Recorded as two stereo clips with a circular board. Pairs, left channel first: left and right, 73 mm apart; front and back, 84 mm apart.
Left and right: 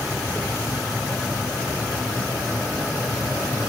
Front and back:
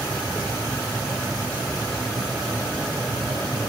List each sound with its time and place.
Only background noise.